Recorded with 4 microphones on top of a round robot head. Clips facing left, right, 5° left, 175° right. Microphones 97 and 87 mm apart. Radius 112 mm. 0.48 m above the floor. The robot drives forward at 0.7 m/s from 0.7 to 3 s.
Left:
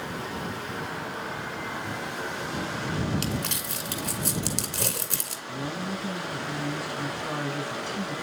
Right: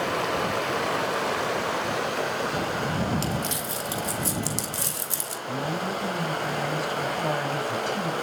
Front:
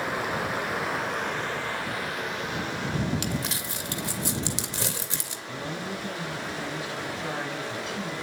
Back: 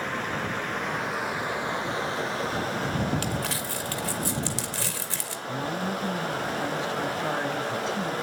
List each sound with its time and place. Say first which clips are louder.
0.0 s running water: right 8 dB, front 1 dB; 75° right, 1.5 m; by 8.2 s 130° right, 1.9 m
3.2 s crumpling: right 3 dB, back 2 dB; 70° left, 2.5 m
5.5 s a woman speaking: right 4 dB, back 4 dB; 115° right, 4 m